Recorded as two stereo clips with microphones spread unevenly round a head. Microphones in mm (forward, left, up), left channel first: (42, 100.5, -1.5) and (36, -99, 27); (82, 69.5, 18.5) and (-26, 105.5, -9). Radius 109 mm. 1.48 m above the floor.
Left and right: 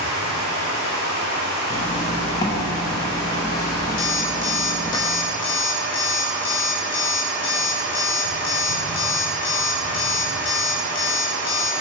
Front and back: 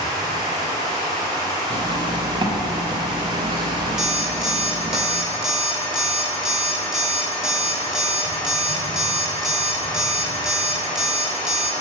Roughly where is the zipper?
Behind.